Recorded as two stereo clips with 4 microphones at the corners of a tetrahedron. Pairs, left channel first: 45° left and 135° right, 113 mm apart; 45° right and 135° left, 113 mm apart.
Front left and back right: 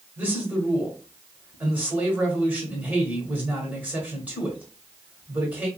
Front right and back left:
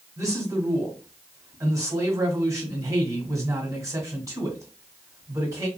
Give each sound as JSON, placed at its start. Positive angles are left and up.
{"t": 0.2, "sound": "a man speaking", "azimuth_deg": 160, "distance_m": 1.3}